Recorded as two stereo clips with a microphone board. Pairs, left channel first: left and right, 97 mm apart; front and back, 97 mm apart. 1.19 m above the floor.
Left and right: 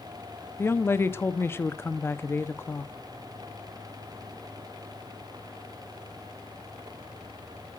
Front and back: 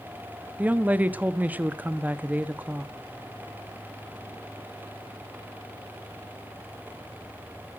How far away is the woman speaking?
About 0.6 m.